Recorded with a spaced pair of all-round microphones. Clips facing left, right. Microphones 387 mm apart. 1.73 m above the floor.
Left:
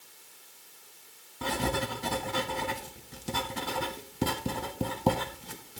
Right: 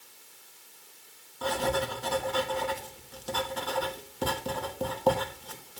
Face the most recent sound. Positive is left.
turn(degrees=35)  # may be behind; listen again after turning